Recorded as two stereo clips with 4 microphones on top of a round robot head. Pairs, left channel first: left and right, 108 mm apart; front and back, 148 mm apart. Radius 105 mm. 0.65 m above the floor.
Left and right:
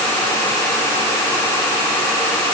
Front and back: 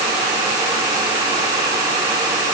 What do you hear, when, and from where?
Only background noise.